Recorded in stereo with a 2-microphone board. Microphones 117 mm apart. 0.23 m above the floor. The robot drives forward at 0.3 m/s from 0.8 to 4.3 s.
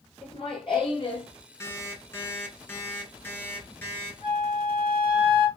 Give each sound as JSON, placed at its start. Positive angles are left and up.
{"t": 0.2, "sound": "laughter", "side_deg": 45, "distance_m": 3.0}
{"t": 1.6, "sound": "an alarm clock", "side_deg": 20, "distance_m": 1.5}
{"t": 4.2, "sound": "a flute", "side_deg": -60, "distance_m": 0.9}